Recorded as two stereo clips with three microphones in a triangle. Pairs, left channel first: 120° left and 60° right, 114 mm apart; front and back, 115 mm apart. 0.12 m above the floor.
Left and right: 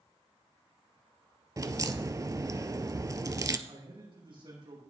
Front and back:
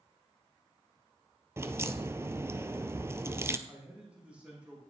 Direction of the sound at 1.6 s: 120° right.